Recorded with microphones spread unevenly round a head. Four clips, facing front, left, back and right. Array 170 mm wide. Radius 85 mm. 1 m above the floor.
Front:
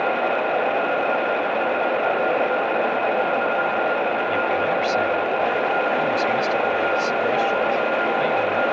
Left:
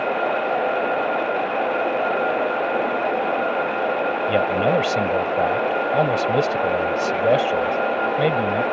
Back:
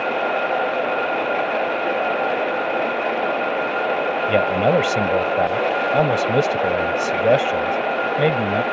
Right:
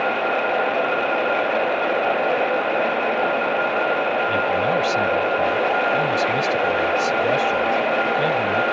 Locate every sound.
4.3 s a man speaking: 155° left